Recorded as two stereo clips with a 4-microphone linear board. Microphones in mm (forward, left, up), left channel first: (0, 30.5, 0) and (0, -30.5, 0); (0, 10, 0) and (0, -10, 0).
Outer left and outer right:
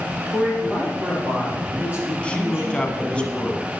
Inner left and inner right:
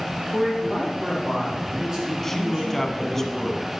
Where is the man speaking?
25° right (ahead or behind), 6.5 m.